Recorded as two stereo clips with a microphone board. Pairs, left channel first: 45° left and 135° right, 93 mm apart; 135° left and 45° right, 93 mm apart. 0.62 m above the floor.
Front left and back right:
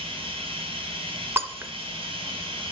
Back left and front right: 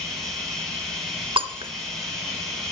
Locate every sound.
0.0 s running water: 140° right, 3 m
1.4 s breaking glass: 70° right, 0.7 m